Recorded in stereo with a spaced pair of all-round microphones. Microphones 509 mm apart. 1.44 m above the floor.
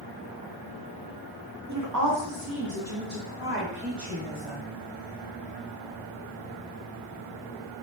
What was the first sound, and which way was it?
A woman speaking, 35° right (ahead or behind).